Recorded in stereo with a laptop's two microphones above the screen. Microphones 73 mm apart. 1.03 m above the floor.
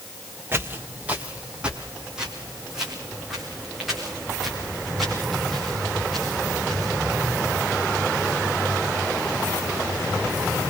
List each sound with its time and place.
0.5 s footsteps: 30° right (ahead or behind), 1.8 m; by 6.9 s centre (ahead or behind), 10.5 m